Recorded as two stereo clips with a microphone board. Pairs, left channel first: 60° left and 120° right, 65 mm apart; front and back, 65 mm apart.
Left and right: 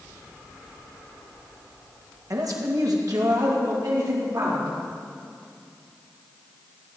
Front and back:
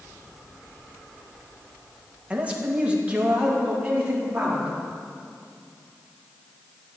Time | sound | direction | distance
2.3 | a man speaking | 115° right | 1.4 m